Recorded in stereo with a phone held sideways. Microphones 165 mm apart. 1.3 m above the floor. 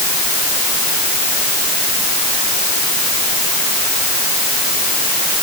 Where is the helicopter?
I don't hear a helicopter.